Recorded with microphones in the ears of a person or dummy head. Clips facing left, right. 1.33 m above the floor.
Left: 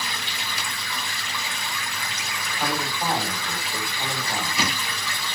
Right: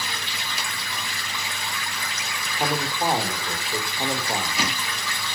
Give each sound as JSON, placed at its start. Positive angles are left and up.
{"t": 2.5, "sound": "a man speaking", "side_deg": -20, "distance_m": 4.0}